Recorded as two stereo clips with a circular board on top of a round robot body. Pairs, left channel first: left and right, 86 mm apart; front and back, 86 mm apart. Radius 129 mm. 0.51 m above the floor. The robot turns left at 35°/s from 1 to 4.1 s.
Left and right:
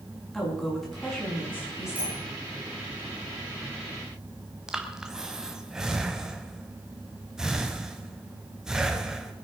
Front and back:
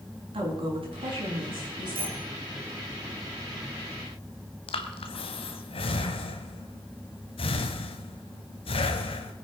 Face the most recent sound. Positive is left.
turn(degrees=-5)